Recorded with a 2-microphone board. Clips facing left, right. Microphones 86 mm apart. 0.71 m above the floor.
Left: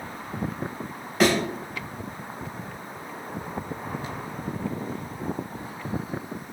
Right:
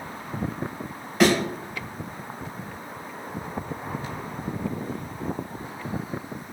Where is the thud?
5° left (ahead or behind), 1.4 m.